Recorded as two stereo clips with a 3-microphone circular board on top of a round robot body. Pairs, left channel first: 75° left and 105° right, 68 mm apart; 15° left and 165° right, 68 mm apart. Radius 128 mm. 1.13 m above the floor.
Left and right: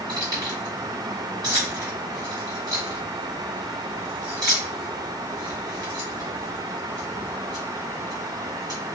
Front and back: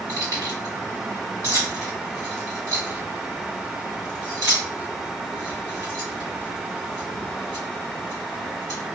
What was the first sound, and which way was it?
Keys jangling, 130° right.